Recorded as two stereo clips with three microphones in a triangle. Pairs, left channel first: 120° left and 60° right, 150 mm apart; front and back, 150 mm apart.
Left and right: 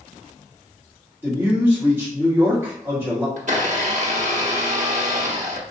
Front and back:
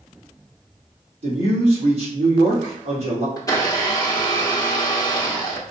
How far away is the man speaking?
About 2.5 m.